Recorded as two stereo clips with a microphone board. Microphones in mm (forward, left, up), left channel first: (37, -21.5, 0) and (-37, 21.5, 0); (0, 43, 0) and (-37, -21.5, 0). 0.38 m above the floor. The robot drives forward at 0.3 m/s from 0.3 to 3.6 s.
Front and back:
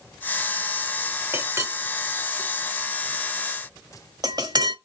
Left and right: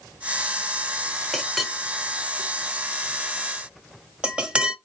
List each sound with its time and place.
1.3 s a clink: 145° left, 0.8 m; by 4.8 s 165° left, 1.2 m